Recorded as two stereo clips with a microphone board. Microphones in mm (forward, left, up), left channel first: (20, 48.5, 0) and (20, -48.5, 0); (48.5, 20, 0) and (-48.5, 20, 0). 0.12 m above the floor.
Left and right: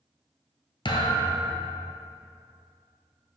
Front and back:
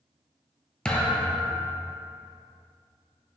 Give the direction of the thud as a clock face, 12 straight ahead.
9 o'clock.